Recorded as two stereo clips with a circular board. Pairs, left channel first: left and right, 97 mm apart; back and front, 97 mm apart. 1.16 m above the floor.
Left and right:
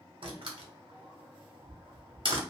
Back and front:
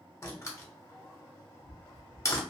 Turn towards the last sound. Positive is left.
turn(degrees=-120)